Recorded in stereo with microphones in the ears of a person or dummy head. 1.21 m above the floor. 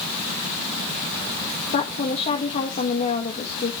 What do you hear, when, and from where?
1.7 s a woman speaking: 40° left (ahead or behind), 1.6 m